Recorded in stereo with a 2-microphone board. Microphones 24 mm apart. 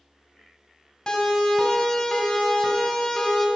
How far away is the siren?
About 3 m.